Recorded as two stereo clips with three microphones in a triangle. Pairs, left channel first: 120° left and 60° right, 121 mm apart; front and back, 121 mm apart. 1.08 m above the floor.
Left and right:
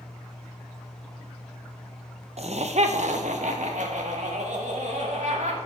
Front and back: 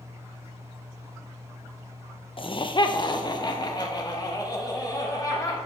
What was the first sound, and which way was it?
Laughter, 40° right.